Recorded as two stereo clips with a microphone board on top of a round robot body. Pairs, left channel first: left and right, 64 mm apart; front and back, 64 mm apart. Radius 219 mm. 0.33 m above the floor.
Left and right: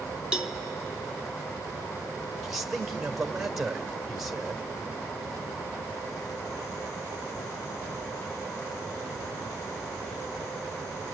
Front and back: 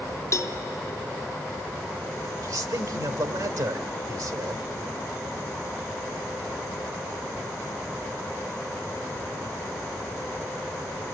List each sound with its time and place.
0.3 s a cowbell: 15° right, 1.1 m
2.4 s a man speaking: 175° right, 2 m